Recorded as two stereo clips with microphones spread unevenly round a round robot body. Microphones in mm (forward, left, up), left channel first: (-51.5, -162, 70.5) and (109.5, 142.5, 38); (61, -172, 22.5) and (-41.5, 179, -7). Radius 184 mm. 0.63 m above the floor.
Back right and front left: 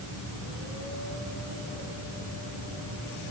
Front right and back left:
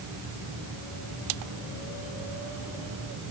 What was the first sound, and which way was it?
Only background noise.